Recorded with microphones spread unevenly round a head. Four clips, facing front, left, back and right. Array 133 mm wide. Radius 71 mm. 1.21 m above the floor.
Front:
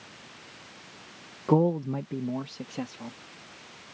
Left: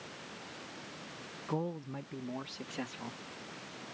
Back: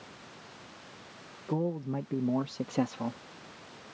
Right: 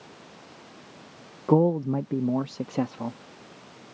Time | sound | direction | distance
1.5 | a man speaking | 60° right | ?